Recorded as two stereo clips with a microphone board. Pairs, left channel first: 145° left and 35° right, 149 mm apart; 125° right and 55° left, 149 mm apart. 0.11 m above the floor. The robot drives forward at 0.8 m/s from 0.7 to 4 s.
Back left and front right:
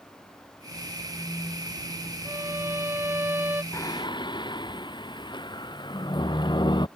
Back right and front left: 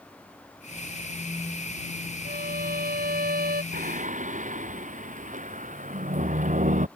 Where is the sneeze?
No sneeze in this recording.